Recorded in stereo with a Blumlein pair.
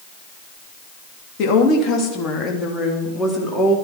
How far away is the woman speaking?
About 2.5 m.